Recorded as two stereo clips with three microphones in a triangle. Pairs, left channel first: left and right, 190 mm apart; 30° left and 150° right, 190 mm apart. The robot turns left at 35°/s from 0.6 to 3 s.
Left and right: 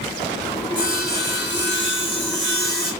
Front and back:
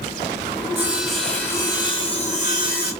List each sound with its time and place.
0.8 s sawing: 135° left, 1.6 m; by 2.9 s 55° left, 1.6 m